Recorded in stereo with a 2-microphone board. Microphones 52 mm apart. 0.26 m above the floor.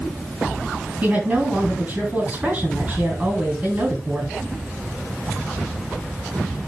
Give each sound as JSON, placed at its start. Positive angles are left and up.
{"t": 1.0, "sound": "a woman speaking", "side_deg": -30, "distance_m": 3.5}